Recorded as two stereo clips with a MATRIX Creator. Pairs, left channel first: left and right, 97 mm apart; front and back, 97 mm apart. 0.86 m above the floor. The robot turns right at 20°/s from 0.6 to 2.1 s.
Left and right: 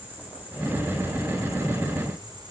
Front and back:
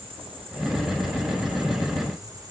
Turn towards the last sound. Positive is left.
turn(degrees=-130)